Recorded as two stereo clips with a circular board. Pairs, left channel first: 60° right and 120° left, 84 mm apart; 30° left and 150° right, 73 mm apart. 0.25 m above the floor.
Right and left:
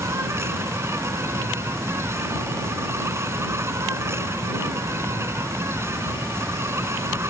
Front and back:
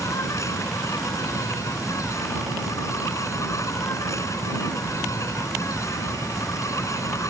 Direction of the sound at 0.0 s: 65° left.